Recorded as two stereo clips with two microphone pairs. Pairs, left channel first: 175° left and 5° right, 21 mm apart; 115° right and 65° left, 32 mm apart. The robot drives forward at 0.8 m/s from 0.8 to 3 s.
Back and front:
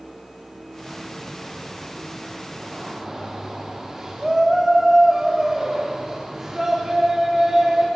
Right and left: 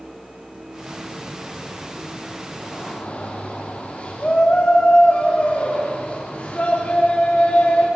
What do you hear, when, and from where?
2.6 s a shout: 65° right, 4.5 m; by 7.9 s 70° right, 4 m